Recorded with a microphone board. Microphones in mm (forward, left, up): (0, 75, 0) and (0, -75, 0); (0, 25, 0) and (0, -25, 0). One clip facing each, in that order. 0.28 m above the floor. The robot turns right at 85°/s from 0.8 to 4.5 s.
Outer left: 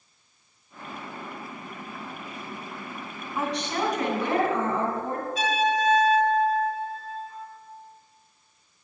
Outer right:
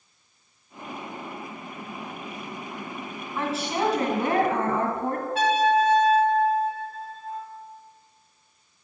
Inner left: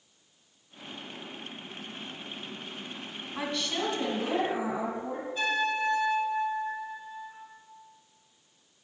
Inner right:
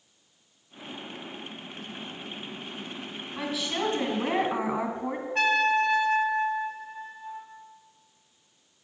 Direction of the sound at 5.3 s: 65° right (ahead or behind).